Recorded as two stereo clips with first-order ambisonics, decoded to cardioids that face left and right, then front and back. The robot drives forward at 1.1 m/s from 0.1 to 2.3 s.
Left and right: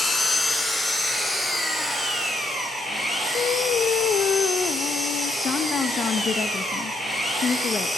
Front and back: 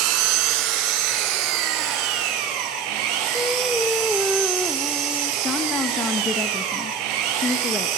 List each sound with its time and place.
0.0 s an engine running: 165° left, 2 m; by 8.0 s 175° left, 4.5 m
3.3 s singing: 90° left, 0.8 m
5.4 s a woman speaking: 55° left, 0.9 m